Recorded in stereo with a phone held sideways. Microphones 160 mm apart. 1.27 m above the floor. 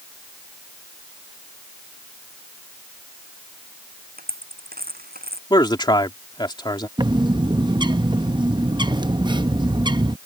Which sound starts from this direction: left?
A man speaking, at 5.5 s.